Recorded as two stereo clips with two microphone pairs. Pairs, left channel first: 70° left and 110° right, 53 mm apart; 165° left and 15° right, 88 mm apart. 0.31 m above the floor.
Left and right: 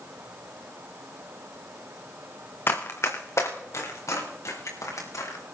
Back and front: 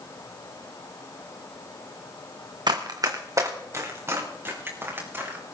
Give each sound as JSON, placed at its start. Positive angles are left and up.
{"t": 2.7, "sound": "running footsteps", "azimuth_deg": 25, "distance_m": 1.6}